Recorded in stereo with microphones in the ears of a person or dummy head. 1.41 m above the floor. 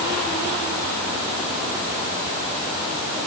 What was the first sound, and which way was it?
Only background noise.